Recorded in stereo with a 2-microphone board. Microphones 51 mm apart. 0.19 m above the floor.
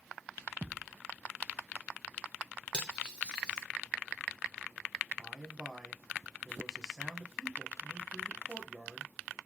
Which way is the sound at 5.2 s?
5° right (ahead or behind).